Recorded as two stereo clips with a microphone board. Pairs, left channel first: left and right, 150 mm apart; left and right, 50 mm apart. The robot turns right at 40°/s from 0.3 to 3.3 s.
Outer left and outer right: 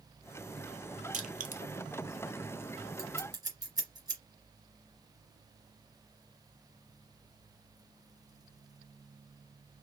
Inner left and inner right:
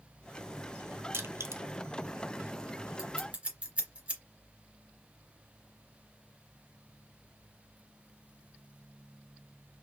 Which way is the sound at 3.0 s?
20° right (ahead or behind).